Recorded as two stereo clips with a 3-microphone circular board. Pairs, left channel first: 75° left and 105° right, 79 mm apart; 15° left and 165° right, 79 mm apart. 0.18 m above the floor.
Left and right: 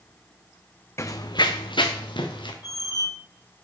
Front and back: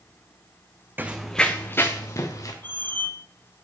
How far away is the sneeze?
I don't hear a sneeze.